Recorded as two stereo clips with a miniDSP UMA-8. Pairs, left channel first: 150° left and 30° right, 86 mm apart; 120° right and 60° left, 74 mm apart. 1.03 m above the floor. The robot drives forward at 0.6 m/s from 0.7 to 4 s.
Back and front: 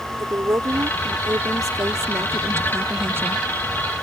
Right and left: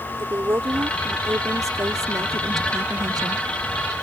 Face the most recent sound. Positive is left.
turn(degrees=40)